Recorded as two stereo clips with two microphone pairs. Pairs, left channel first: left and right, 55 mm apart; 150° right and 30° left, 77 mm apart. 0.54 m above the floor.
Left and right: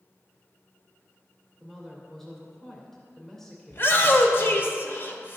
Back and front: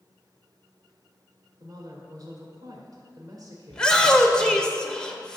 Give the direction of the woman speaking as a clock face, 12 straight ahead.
12 o'clock.